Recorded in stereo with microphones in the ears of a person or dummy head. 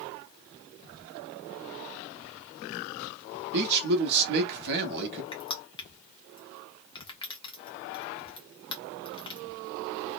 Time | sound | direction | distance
3.5 | a man speaking | 60° right (ahead or behind) | 1.0 m
5.3 | crushing | 25° left (ahead or behind) | 0.5 m